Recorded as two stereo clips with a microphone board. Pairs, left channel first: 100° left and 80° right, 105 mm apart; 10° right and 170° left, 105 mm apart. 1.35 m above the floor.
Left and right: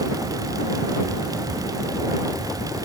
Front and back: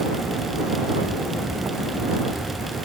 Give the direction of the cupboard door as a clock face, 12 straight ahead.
No cupboard door in this recording.